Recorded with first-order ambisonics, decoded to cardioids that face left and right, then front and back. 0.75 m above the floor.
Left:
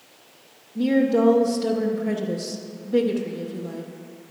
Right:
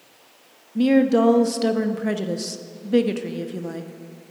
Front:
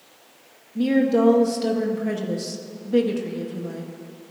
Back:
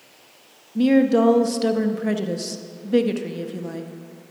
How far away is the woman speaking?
About 0.6 m.